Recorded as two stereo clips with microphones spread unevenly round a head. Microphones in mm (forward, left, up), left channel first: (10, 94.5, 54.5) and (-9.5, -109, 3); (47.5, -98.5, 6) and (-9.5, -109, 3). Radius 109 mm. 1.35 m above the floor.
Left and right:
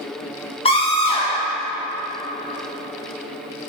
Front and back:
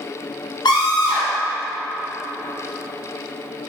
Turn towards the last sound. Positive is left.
turn(degrees=20)